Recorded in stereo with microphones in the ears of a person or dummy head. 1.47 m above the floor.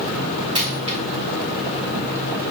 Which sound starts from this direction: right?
A dropped coin, at 0.6 s.